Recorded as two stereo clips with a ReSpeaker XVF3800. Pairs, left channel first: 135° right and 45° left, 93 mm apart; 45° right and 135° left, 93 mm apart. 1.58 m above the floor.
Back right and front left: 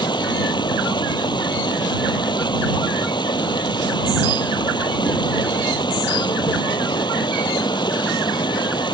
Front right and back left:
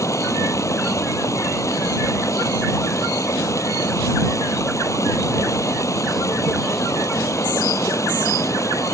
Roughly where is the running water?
Right.